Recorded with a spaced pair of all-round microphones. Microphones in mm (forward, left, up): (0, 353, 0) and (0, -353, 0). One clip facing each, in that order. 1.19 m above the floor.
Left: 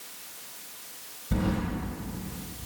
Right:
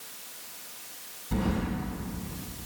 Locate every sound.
1.3 s keys jangling: 25° left (ahead or behind), 4.5 m